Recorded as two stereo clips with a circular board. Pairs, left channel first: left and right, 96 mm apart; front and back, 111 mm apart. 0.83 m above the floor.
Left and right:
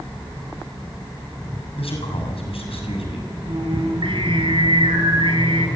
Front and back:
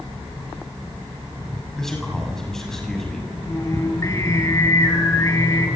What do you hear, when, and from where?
1.8 s a man speaking: 85° left, 7 m
3.5 s singing: 60° right, 4 m